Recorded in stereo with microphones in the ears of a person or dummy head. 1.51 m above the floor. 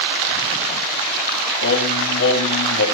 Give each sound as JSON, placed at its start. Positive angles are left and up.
{"t": 1.6, "sound": "singing", "side_deg": 60, "distance_m": 2.5}